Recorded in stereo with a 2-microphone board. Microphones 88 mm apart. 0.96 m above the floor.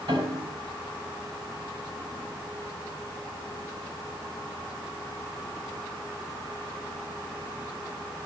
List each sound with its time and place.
0.1 s a piano: 75° right (ahead or behind), 8 m